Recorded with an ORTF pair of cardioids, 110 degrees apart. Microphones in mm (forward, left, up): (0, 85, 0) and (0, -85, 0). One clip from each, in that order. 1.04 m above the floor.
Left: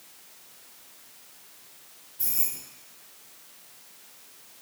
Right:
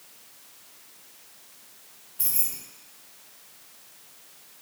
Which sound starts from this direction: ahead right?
Keys jangling, at 2.2 s.